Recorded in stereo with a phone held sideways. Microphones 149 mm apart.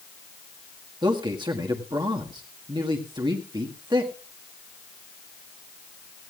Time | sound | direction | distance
1.0 | a man speaking | 30° right (ahead or behind) | 1.7 m